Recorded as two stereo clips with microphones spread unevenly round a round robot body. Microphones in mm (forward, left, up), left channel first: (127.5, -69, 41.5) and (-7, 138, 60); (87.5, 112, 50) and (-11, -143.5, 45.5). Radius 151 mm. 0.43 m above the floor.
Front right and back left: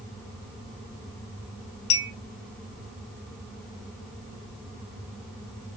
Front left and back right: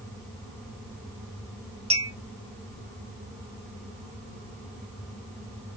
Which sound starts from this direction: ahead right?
A clink, at 1.9 s.